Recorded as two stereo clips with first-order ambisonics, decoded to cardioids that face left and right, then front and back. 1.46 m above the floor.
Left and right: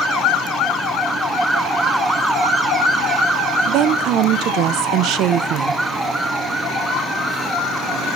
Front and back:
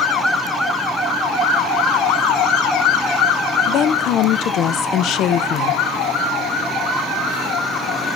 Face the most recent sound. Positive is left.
turn(degrees=-50)